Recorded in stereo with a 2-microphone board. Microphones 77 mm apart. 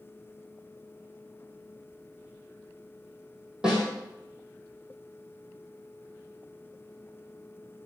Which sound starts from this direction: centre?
A snare drum, at 3.6 s.